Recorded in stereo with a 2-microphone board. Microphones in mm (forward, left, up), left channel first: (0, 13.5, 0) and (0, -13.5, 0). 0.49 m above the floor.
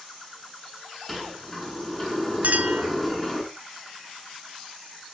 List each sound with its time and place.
1.1 s a sliding door: 5° right (ahead or behind), 6.5 m
2.4 s a clink: 65° right (ahead or behind), 4 m